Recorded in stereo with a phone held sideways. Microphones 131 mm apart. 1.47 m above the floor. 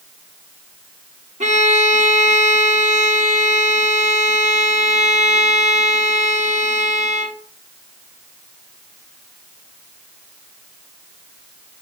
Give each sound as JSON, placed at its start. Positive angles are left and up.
{"t": 1.4, "sound": "a violin", "side_deg": -70, "distance_m": 0.9}